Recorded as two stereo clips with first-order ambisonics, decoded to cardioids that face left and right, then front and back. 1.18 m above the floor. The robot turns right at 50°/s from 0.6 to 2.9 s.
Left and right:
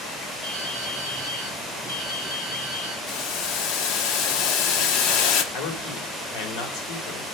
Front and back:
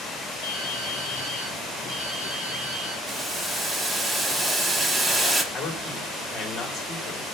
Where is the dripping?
15° right, 6.5 m; by 3.0 s 100° left, 6.5 m.